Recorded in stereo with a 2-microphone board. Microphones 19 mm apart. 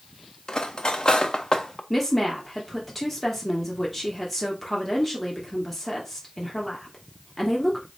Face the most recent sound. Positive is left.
turn(degrees=5)  # may be behind; listen again after turning